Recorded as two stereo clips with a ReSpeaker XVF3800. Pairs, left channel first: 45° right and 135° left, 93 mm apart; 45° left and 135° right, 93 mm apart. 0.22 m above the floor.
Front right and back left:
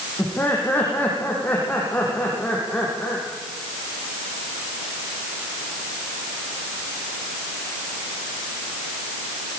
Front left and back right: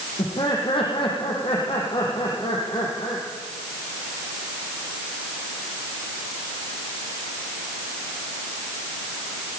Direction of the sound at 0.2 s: 25° left.